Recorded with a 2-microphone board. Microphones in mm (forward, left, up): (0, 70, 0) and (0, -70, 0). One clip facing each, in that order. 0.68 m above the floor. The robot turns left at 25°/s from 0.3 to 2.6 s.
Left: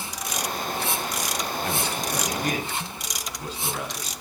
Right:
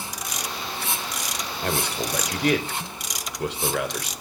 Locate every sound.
1.6 s a man speaking: 60° right (ahead or behind), 3.5 m; by 4.1 s 70° right (ahead or behind), 3.5 m